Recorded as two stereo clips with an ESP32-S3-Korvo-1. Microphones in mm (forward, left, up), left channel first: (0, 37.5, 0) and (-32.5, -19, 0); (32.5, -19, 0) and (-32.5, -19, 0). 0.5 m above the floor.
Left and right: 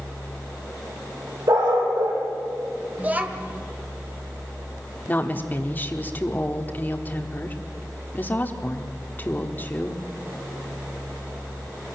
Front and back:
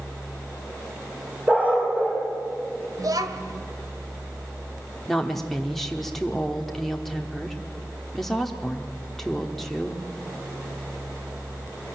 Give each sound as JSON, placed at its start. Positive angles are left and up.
{"t": 1.5, "sound": "a dog barking", "azimuth_deg": -110, "distance_m": 5.5}
{"t": 3.0, "sound": "a child speaking", "azimuth_deg": 175, "distance_m": 1.8}
{"t": 5.1, "sound": "a woman speaking", "azimuth_deg": 85, "distance_m": 1.2}